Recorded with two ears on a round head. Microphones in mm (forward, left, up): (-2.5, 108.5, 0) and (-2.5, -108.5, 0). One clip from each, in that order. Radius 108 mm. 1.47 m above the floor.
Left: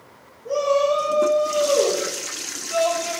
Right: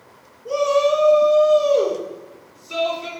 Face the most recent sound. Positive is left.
turn(degrees=-75)  # may be behind; listen again after turning